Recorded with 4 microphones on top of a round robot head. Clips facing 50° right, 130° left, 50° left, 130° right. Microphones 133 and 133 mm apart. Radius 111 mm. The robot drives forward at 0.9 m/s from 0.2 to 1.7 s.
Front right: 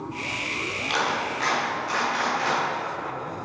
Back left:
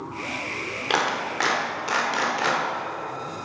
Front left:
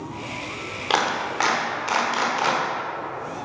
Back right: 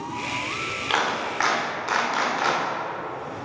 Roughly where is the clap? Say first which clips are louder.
Back left 2 dB, front left 3 dB; left.